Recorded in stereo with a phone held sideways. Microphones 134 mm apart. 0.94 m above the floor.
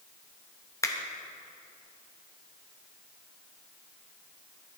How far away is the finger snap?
About 0.8 m.